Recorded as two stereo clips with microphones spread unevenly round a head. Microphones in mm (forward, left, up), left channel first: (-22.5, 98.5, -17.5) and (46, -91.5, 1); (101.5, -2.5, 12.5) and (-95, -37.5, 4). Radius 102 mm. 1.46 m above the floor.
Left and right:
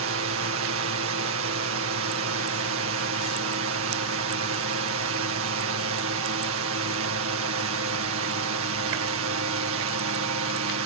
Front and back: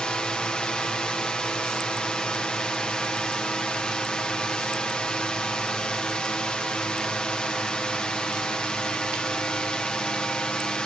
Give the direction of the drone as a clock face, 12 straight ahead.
3 o'clock.